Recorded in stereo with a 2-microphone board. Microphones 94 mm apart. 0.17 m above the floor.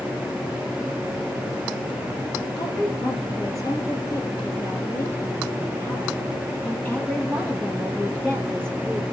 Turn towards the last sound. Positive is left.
turn(degrees=0)  # may be behind; listen again after turning